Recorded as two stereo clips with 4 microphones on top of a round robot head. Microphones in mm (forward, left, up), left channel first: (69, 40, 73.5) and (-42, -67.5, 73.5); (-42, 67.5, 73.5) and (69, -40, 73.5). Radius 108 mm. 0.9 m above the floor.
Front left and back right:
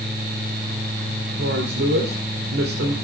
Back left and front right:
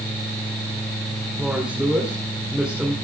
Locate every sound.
1.4 s a woman speaking: 130° right, 2.5 m